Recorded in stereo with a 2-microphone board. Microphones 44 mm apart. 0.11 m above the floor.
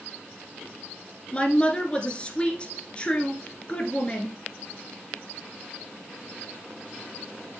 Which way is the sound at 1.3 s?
25° left (ahead or behind).